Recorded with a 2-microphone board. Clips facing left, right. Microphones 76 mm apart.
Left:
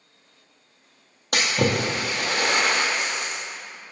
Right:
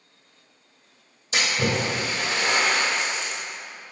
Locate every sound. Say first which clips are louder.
1.3 s a splash: left 2 dB; 70° left (ahead or behind), 1.8 m